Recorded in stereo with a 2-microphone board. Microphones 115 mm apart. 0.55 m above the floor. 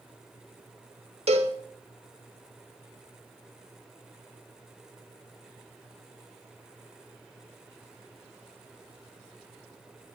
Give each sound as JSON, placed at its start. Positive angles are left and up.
{"t": 1.3, "sound": "a cowbell", "side_deg": -65, "distance_m": 0.7}